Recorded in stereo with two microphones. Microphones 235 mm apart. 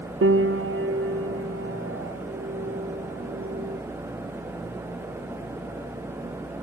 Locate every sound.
0.2 s a piano: 65° right (ahead or behind), 0.6 m